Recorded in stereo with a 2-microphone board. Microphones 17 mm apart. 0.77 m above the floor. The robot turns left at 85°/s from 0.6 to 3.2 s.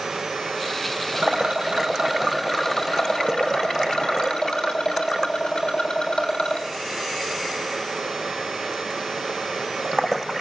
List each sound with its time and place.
1.2 s a rattle: 75° right, 3.5 m; by 6.7 s 110° left, 3.5 m